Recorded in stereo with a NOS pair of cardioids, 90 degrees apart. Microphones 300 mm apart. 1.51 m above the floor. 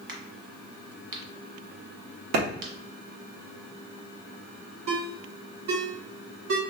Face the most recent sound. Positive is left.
turn(degrees=-70)